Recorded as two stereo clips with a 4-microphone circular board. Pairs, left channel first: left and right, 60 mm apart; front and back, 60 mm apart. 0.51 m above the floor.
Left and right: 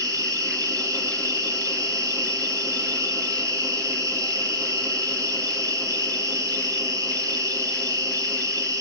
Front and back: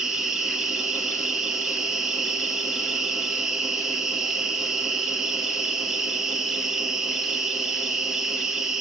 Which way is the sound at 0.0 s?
100° right.